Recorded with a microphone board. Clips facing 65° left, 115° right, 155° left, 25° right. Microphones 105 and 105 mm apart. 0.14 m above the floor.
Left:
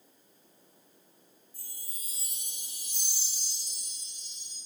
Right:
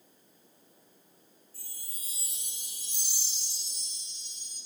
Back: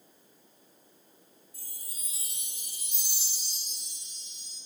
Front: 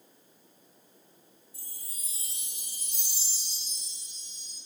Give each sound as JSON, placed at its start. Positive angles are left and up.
{"t": 1.5, "sound": "a chime", "azimuth_deg": 135, "distance_m": 2.0}